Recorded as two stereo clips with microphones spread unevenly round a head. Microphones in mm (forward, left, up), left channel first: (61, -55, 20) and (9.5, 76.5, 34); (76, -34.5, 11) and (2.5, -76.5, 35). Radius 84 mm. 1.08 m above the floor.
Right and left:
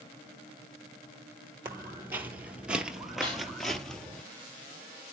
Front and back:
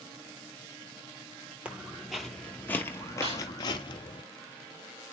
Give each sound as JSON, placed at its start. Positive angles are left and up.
{"t": 1.6, "sound": "footsteps", "azimuth_deg": 170, "distance_m": 1.3}
{"t": 3.2, "sound": "a snare drum", "azimuth_deg": -150, "distance_m": 5.0}